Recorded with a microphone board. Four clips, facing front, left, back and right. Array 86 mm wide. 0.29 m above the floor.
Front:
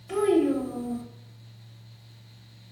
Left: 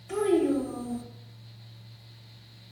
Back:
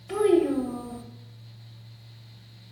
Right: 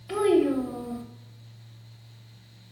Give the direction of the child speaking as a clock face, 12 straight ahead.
4 o'clock.